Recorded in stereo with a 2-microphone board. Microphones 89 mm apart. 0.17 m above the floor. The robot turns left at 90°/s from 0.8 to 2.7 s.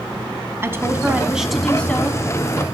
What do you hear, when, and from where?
0.6 s a woman speaking: 25° right (ahead or behind), 1.1 m; by 2.2 s 25° left (ahead or behind), 1.1 m